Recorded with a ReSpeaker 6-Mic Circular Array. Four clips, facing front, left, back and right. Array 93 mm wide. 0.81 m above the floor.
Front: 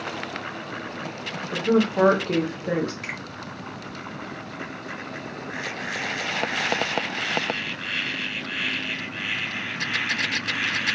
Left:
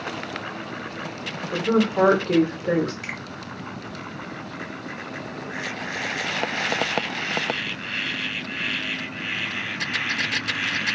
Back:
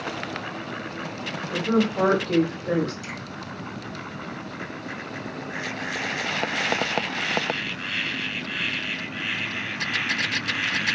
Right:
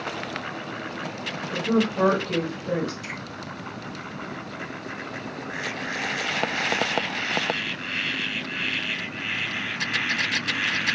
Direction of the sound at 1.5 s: 45° left.